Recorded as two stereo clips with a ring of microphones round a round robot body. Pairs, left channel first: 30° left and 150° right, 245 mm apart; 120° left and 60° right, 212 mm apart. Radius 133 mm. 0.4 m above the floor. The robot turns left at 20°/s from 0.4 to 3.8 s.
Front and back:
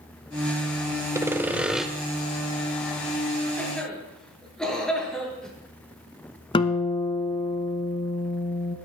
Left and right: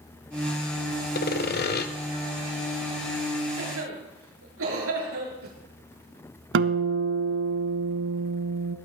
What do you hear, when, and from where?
1.1 s sawing: 135° left, 1.2 m; by 1.9 s 120° left, 1.2 m
3.6 s a cough: 50° right, 6.5 m; by 5.5 s 55° right, 6.5 m
6.5 s a guitar: 40° right, 0.8 m